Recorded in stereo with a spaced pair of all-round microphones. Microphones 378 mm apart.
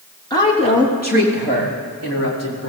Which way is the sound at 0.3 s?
10° left (ahead or behind).